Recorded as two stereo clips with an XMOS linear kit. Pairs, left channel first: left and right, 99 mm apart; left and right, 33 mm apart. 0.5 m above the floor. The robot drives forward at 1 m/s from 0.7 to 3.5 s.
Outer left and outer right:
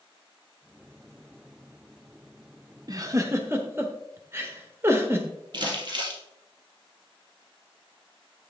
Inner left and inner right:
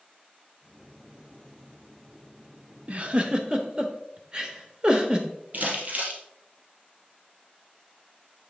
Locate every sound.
2.9 s a giggle: 40° right (ahead or behind), 0.7 m; by 5.3 s 25° right (ahead or behind), 1.1 m
5.5 s crumpling: 50° right (ahead or behind), 2 m